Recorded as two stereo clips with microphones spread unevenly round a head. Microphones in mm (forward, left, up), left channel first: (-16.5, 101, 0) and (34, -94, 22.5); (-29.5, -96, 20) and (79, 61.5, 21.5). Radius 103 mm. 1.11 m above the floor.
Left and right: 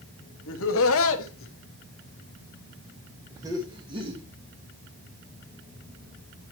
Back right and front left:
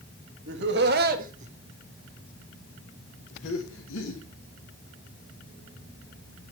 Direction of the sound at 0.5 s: 90° left.